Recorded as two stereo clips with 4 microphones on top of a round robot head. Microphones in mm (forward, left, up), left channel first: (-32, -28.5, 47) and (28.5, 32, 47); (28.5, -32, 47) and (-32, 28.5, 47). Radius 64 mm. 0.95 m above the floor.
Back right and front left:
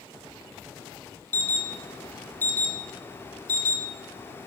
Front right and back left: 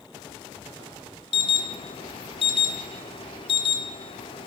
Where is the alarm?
70° right, 1.8 m.